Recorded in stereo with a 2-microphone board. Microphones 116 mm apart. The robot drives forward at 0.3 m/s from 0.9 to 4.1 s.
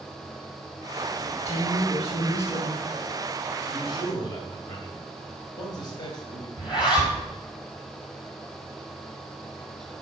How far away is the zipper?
About 3 m.